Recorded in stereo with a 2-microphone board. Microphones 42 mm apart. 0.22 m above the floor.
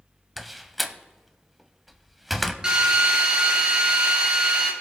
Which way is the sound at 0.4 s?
Centre (ahead or behind).